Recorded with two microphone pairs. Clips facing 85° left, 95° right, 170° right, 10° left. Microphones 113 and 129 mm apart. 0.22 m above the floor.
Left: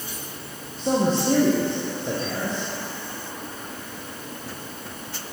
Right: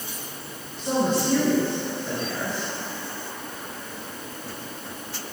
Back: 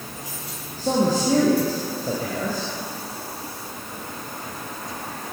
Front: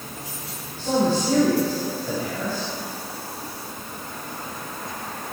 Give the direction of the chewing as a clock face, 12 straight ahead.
No chewing in this recording.